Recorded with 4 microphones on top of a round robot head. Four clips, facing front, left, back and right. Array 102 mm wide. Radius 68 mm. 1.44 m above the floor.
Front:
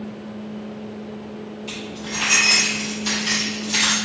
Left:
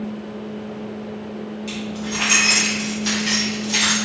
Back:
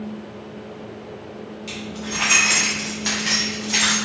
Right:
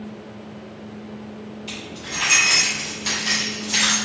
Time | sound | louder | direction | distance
1.7 | keys jangling | left 7 dB, back 1 dB | 135° left | 1.3 m